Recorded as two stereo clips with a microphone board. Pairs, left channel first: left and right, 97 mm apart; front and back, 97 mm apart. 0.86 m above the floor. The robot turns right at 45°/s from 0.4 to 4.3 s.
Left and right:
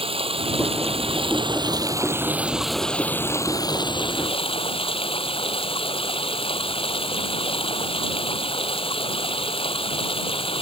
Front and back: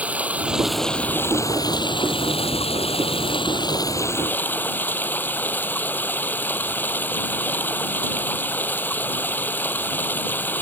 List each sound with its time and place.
0.0 s running water: 105° right; by 10.6 s 70° left